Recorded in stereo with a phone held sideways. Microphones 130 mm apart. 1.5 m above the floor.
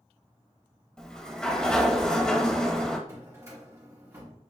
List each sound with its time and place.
1.0 s a sliding door: 5° left (ahead or behind), 0.8 m
3.1 s a drawer: 25° right (ahead or behind), 1.5 m